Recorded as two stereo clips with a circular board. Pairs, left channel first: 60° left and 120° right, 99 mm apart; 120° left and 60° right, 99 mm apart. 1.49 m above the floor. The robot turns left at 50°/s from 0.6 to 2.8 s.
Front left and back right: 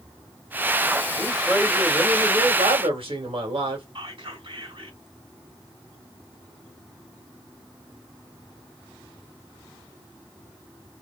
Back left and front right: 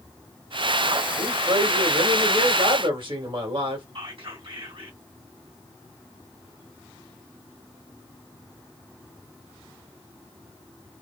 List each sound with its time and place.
1.2 s a man speaking: 15° right, 1.7 m; by 3.9 s 95° right, 1.7 m
4.0 s whispering: 90° right, 1.9 m